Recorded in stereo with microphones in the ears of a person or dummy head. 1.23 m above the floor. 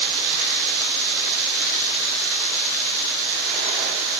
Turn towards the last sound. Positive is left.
No sound to turn to.